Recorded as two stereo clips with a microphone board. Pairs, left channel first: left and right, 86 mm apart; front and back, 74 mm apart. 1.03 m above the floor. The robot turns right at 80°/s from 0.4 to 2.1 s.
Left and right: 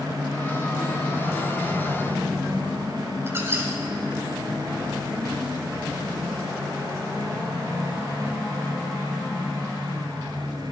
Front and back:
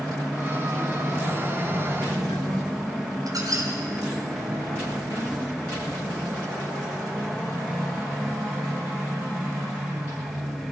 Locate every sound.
3.3 s a squeak: 150° right, 2 m